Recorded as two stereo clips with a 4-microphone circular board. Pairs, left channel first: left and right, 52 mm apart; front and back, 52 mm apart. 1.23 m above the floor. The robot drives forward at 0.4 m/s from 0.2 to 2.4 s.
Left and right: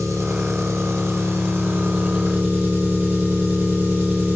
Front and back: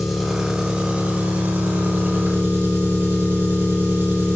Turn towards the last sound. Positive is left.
turn(degrees=-140)